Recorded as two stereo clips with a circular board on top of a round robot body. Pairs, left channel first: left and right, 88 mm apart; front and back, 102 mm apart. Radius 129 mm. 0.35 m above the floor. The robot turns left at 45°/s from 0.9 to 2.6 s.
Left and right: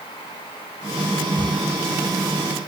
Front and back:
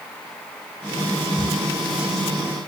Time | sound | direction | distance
1.4 | a camera shutter | 115° left | 6.5 m